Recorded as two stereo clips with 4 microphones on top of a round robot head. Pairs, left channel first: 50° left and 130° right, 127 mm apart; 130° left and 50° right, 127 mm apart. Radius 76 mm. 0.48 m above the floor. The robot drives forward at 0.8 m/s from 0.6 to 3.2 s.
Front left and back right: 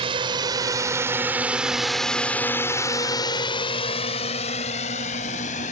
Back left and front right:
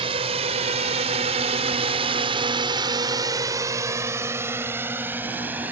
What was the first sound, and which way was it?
A drone, 90° right.